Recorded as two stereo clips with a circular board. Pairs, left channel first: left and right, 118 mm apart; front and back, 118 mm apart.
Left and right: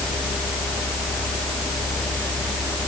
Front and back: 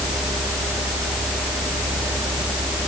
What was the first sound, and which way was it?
Only background noise.